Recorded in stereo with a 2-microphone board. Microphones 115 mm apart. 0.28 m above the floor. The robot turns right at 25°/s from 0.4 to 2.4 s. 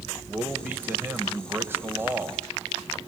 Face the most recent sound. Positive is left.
turn(degrees=-20)  # may be behind; listen again after turning